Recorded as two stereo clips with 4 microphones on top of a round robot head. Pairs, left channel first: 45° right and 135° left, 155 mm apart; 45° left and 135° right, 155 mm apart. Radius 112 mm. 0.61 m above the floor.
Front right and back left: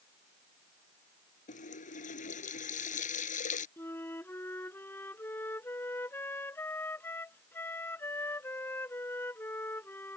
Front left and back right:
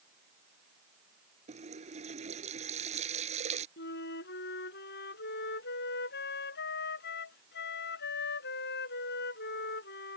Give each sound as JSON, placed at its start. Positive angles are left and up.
{"t": 1.5, "sound": "a running tap", "azimuth_deg": -85}
{"t": 3.8, "sound": "a flute", "azimuth_deg": 35}